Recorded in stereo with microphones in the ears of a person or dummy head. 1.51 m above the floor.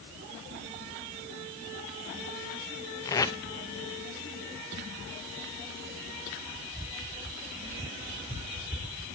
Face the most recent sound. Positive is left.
turn(degrees=15)  # may be behind; listen again after turning